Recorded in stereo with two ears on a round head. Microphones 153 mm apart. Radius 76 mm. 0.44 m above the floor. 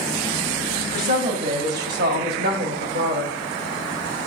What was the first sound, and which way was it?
A woman speaking, 55° right (ahead or behind).